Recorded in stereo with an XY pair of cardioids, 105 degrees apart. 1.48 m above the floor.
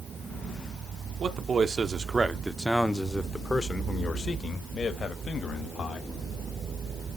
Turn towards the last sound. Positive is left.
turn(degrees=50)